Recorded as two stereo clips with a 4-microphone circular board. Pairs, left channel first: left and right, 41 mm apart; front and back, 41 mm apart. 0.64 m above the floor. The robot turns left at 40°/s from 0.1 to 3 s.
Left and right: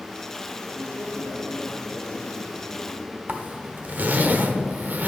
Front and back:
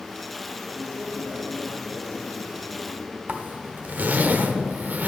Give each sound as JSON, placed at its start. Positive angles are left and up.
{"t": 0.7, "sound": "a man speaking", "azimuth_deg": 100, "distance_m": 2.5}
{"t": 3.3, "sound": "a zipper", "azimuth_deg": -135, "distance_m": 1.0}